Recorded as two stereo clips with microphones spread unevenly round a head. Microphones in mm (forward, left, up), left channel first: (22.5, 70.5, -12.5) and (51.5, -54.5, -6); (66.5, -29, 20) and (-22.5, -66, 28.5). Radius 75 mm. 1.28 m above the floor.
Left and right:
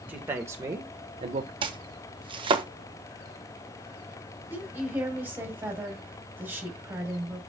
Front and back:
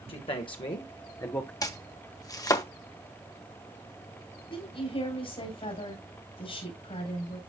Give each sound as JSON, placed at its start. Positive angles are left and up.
{"t": 0.1, "sound": "a man speaking", "azimuth_deg": 0, "distance_m": 1.7}
{"t": 1.6, "sound": "chopping", "azimuth_deg": -25, "distance_m": 1.3}
{"t": 4.5, "sound": "a woman speaking", "azimuth_deg": -5, "distance_m": 4.0}